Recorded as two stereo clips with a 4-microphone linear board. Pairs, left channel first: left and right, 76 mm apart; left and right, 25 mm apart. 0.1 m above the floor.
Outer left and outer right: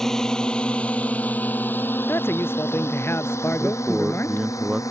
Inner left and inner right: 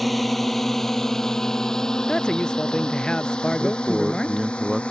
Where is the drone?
5° left (ahead or behind); by 4.9 s 40° left (ahead or behind).